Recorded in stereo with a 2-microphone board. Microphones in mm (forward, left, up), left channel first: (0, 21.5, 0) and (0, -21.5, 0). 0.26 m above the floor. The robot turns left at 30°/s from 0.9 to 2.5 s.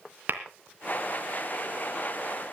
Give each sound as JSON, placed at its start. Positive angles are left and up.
{"t": 0.3, "sound": "tapping", "side_deg": -50, "distance_m": 3.0}